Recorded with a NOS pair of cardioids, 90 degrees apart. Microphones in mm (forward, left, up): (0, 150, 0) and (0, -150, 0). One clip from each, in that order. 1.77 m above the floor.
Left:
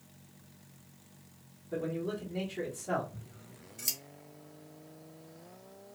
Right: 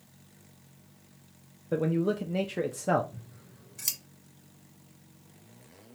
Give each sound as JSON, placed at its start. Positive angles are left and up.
{"t": 1.7, "sound": "a man speaking", "azimuth_deg": -55, "distance_m": 0.5}
{"t": 3.1, "sound": "scissors", "azimuth_deg": -30, "distance_m": 0.9}